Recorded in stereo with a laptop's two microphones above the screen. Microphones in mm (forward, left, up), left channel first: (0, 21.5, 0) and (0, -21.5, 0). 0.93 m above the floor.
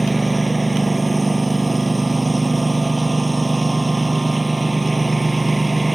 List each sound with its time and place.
0.0 s a lawn mower: centre (ahead or behind)